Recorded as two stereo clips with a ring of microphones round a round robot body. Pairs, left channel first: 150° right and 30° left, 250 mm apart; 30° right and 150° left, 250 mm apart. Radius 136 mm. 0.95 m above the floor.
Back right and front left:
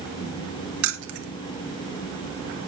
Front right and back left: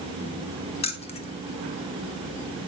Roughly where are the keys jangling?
Ahead left.